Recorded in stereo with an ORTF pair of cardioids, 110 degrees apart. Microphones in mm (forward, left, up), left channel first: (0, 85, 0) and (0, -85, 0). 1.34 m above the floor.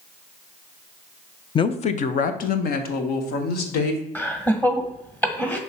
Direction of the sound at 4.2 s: 10° left.